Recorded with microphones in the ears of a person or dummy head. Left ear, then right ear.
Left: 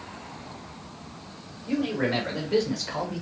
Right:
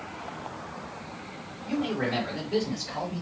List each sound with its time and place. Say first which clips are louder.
1.7 s a man speaking: left 2 dB; 10° right (ahead or behind), 1.0 m; by 3.2 s 45° left (ahead or behind), 0.8 m